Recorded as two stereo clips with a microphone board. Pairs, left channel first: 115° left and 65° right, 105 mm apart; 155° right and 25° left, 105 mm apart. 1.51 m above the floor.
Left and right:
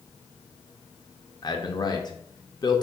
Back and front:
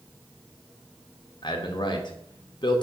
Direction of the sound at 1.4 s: 160° left.